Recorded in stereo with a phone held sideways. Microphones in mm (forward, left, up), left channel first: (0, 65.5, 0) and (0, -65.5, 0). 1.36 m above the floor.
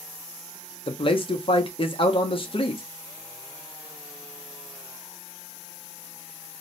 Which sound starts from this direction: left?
A man speaking, at 0.9 s.